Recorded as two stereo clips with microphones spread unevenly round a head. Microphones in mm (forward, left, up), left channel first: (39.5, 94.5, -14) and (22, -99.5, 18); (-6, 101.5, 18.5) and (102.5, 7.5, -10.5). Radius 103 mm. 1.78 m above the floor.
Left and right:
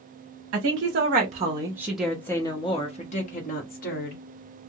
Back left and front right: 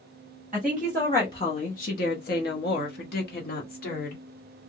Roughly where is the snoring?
No snoring in this recording.